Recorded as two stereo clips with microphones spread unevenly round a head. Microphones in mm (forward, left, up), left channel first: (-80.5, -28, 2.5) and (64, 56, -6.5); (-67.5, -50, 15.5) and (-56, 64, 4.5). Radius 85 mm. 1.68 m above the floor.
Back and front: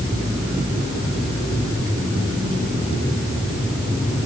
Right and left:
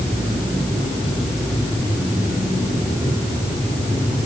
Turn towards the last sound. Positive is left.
No sound to turn to.